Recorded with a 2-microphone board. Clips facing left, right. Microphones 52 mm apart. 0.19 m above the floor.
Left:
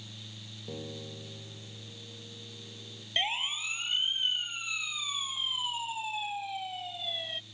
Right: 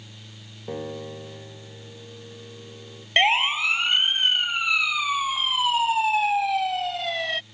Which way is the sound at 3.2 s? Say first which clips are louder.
Right 13 dB; 75° right (ahead or behind).